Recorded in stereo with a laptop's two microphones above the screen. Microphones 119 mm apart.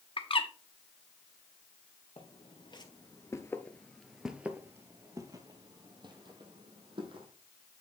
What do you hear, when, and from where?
0.2 s a bird: 50° left (ahead or behind), 1.0 m
2.2 s footsteps: 50° left (ahead or behind), 1.4 m; by 7.3 s 45° right (ahead or behind), 2.5 m